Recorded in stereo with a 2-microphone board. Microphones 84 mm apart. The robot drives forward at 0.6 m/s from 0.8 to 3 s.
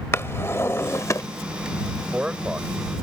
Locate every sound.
0.1 s a drawer: 30° left (ahead or behind); by 1.2 s 40° left (ahead or behind)
2.0 s a man speaking: 10° right (ahead or behind); by 3.0 s 15° right (ahead or behind)